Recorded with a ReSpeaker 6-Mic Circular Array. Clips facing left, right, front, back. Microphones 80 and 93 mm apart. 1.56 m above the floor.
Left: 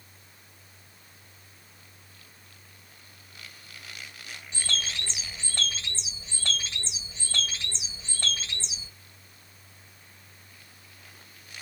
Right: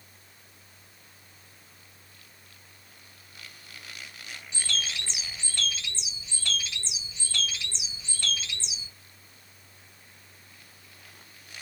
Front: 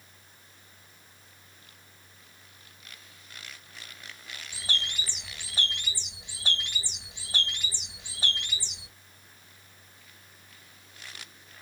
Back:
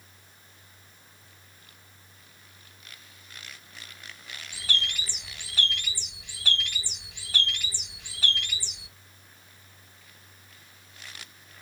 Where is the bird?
50° left, 1.4 m.